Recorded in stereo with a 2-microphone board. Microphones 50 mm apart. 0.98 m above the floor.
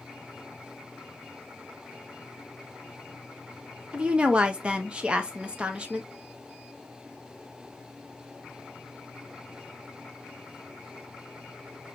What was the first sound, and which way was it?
A woman speaking, 25° right (ahead or behind).